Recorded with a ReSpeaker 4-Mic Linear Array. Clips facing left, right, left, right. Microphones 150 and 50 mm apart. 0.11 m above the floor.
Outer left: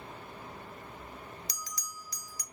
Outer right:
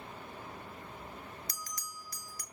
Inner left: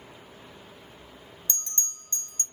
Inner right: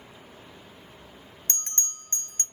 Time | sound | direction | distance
1.5 | a bell | 50° right (ahead or behind) | 0.5 m